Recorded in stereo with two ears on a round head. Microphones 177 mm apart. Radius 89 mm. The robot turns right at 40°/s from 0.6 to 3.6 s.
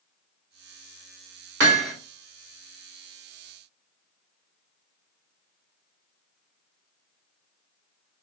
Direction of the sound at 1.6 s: 60° right (ahead or behind).